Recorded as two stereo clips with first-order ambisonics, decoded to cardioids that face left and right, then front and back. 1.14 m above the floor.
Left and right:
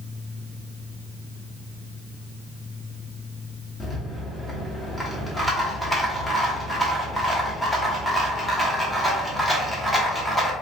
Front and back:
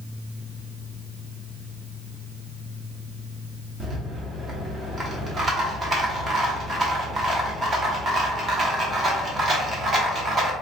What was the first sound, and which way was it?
A rattle, 165° left.